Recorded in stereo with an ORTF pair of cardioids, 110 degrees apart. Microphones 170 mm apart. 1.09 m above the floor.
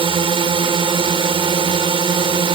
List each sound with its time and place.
0.0 s a drone: 30° right